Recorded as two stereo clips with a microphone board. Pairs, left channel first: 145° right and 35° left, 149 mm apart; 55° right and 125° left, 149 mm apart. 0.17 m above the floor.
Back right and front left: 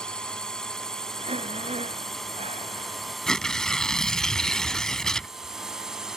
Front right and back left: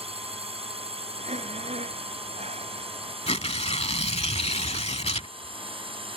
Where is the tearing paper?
60° right.